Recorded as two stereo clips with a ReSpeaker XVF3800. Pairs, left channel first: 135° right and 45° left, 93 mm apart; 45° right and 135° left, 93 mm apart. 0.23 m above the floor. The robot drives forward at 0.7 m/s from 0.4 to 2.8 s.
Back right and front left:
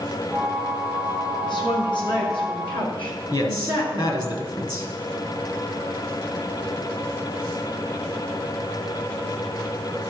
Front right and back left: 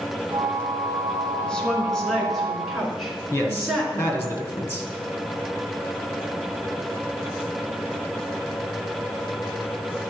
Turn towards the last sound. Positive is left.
turn(degrees=-105)